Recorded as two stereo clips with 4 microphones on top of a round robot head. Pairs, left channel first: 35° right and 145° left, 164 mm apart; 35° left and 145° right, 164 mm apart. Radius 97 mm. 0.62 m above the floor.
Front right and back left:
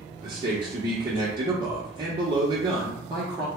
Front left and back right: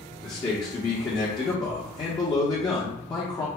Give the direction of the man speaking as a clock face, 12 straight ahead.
9 o'clock.